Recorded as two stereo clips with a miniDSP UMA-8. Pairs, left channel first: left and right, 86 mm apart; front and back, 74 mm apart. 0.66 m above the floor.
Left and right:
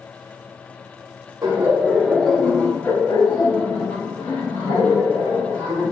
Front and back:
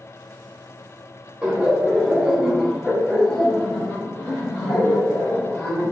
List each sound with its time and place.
1.4 s laughter: 120° right, 0.7 m; by 5.8 s 75° left, 2 m